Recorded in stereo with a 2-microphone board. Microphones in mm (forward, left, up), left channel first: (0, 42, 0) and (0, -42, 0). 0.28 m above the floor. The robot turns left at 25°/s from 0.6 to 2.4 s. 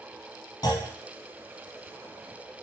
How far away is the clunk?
About 0.9 m.